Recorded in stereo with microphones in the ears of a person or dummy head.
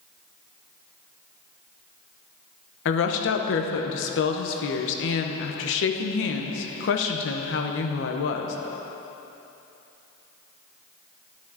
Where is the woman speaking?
65° left (ahead or behind), 0.9 m.